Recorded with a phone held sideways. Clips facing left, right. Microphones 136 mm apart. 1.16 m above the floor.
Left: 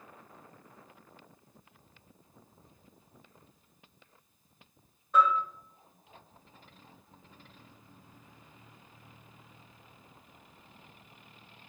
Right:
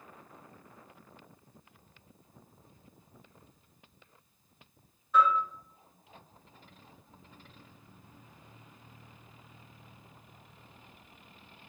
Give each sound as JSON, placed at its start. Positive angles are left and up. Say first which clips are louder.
{"t": 5.1, "sound": "a bell", "louder": "even", "side_deg": 45, "distance_m": 1.2}